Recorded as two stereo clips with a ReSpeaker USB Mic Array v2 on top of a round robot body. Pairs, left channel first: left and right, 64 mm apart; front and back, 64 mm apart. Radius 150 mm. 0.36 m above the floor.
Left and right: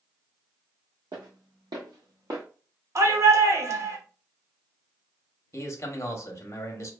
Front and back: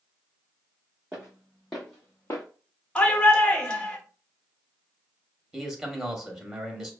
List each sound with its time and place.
1.1 s footsteps: 100° right, 1.3 m; by 2.4 s 40° right, 0.5 m
3.0 s a shout: 75° right, 1.2 m
5.5 s a man speaking: 105° left, 1.0 m